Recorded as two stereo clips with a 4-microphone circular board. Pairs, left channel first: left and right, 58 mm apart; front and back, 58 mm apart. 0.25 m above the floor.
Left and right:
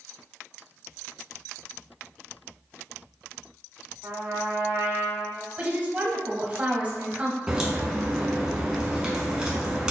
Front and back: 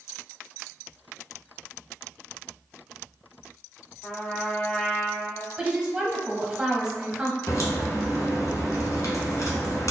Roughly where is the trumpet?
Ahead right.